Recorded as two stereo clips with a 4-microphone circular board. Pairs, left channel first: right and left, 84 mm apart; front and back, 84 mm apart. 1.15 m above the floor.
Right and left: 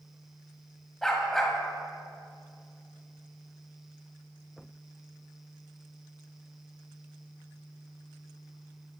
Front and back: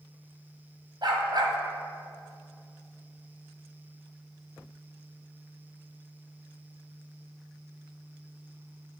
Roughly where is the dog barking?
Behind.